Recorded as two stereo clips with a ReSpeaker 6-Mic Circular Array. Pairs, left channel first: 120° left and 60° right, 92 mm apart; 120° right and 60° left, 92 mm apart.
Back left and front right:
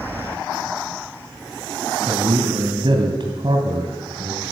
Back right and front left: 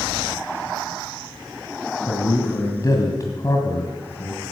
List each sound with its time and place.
2.1 s a man speaking: 75° right, 2 m